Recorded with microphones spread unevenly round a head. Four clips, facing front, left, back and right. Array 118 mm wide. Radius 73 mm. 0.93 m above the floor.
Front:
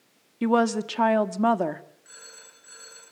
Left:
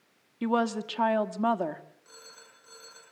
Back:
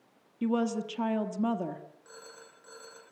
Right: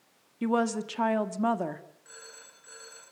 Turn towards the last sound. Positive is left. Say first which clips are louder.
# right 2 dB, back 2 dB
turn(degrees=175)